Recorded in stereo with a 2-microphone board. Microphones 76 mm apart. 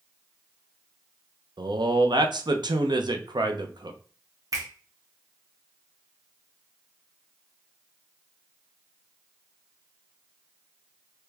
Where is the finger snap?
45° right (ahead or behind), 1.3 m.